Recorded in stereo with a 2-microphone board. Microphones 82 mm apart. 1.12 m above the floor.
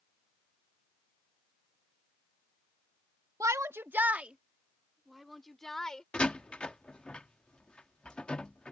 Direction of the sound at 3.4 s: 45° right (ahead or behind).